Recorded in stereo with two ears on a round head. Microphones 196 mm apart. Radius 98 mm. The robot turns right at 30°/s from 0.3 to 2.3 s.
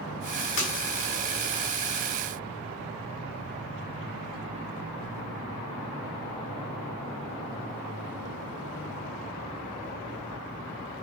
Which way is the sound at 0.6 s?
50° left (ahead or behind).